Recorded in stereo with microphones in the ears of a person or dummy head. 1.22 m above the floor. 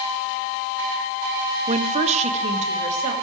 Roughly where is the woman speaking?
Right.